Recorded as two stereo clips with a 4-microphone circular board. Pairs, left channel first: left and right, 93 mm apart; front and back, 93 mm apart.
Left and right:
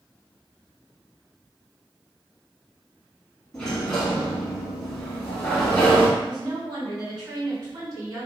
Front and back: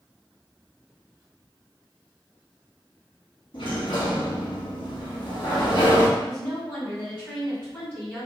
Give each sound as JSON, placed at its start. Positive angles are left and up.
{"t": 3.5, "sound": "a sliding door", "azimuth_deg": 10, "distance_m": 1.1}
{"t": 6.2, "sound": "a woman speaking", "azimuth_deg": -65, "distance_m": 1.7}